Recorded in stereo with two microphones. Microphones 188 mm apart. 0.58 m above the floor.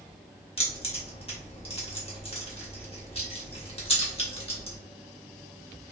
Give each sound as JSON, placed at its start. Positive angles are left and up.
{"t": 0.6, "sound": "keys jangling", "side_deg": 35, "distance_m": 0.9}